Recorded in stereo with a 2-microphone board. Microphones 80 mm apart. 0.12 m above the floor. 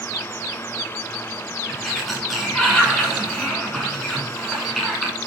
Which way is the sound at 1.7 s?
Centre (ahead or behind).